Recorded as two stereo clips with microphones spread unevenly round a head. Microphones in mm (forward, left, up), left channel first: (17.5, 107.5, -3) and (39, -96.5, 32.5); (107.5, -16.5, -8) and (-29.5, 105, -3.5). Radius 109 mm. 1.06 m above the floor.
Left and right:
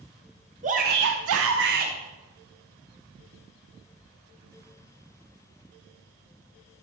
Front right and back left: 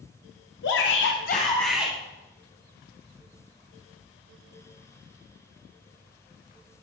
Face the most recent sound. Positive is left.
turn(degrees=-145)